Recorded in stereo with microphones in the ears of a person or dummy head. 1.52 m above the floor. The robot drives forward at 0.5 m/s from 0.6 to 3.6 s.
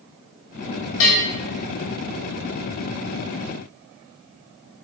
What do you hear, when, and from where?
1.0 s a bell: 55° left (ahead or behind), 1.5 m